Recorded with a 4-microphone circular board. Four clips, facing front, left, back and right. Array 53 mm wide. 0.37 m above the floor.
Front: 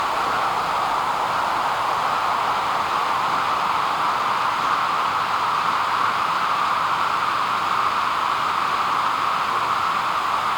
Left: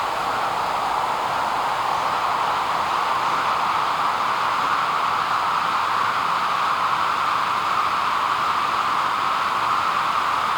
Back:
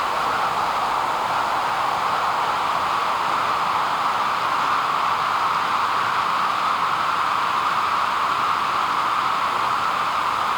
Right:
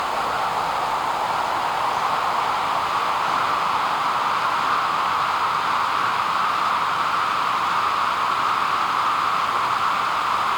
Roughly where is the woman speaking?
I don't hear a woman speaking.